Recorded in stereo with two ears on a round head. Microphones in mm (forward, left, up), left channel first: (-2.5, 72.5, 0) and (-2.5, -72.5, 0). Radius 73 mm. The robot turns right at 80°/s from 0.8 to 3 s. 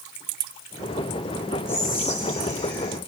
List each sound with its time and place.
1.7 s whispering: 10° left, 5.5 m; by 3.0 s 115° left, 5.5 m